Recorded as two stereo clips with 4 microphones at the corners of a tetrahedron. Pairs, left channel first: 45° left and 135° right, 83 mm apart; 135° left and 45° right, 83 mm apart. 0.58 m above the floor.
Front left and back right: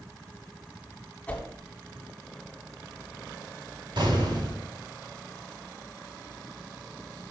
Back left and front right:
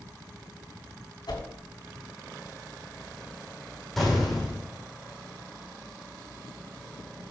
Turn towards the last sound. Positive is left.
turn(degrees=-140)